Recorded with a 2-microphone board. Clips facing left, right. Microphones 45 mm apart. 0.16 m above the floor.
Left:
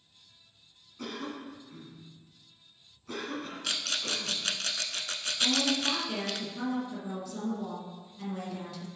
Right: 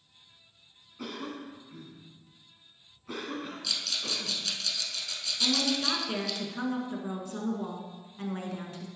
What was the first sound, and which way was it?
A cough, 10° right (ahead or behind).